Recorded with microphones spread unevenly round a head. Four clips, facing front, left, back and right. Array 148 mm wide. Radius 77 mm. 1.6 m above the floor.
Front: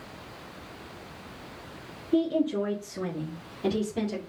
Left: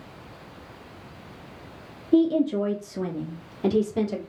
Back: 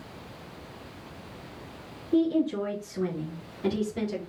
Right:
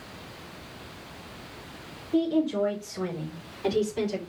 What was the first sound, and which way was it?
A woman speaking, 100° left.